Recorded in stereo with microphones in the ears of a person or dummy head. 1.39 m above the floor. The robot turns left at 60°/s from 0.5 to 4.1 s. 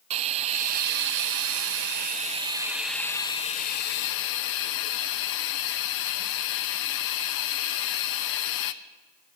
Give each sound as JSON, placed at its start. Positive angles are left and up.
{"t": 0.1, "sound": "a hiss", "azimuth_deg": -40, "distance_m": 0.6}